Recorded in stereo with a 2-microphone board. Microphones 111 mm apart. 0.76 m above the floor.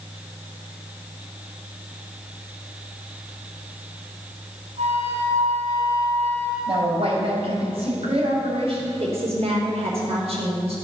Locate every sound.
4.8 s a flute: 65° right (ahead or behind), 3.5 m
6.7 s a woman speaking: 60° right (ahead or behind), 4 m
9.0 s a woman speaking: 65° right (ahead or behind), 3.5 m